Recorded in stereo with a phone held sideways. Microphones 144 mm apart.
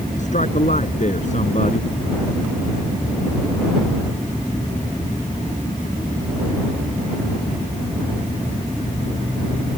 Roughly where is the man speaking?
Left.